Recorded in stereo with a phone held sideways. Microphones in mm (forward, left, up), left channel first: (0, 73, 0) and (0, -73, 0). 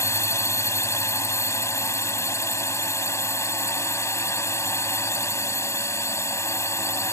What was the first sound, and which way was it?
A drone, 20° left (ahead or behind).